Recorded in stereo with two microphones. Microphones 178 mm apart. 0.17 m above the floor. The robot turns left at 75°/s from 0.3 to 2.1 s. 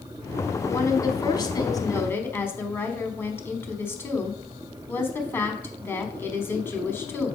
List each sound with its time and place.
0.7 s a woman speaking: 15° left (ahead or behind), 1.1 m